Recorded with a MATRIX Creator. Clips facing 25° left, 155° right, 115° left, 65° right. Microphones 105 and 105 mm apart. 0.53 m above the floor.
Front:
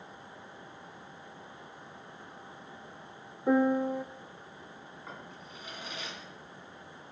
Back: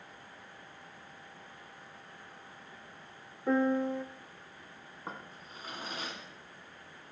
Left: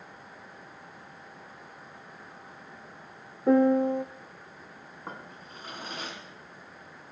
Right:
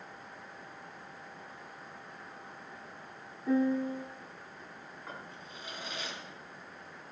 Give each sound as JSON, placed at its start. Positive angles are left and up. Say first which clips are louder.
{"t": 3.5, "sound": "a piano", "louder": "front 3 dB, left 8 dB", "azimuth_deg": 100, "distance_m": 0.6}
{"t": 5.1, "sound": "a drawer", "louder": "back 3 dB, left 4 dB", "azimuth_deg": 155, "distance_m": 3.0}